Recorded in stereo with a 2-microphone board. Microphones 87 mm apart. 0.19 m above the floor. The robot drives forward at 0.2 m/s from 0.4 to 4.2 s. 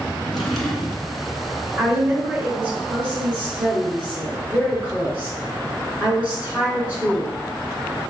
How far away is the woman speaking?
About 1.4 m.